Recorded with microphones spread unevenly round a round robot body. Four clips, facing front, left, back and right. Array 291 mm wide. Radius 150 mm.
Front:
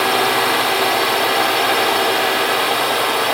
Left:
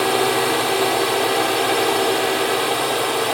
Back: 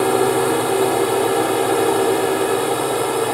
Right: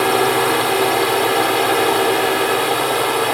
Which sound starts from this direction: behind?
A drone, at 0.0 s.